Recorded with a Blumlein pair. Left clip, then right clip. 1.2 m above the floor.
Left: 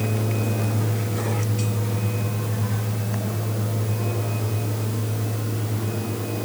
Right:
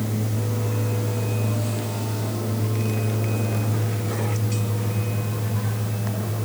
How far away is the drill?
I don't hear a drill.